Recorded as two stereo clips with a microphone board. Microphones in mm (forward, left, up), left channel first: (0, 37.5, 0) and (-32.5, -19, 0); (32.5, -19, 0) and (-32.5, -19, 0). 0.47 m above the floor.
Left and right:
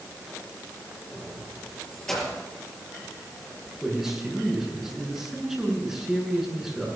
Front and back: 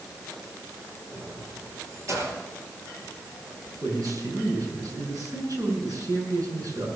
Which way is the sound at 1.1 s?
135° left.